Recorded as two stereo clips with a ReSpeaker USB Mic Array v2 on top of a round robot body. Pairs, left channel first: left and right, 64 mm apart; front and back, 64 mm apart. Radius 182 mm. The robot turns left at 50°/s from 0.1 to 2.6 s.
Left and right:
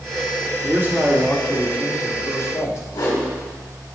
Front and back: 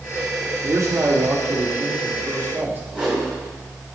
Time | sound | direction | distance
0.6 | a man speaking | 135° right | 2.5 m
2.9 | a whoosh | 110° left | 3.5 m